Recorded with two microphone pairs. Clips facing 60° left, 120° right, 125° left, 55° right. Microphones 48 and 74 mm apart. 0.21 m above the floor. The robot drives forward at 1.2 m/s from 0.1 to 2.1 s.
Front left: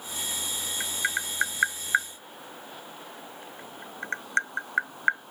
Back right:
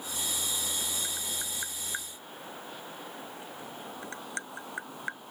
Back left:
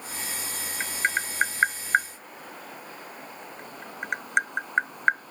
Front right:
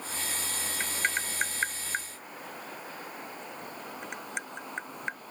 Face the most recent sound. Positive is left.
turn(degrees=95)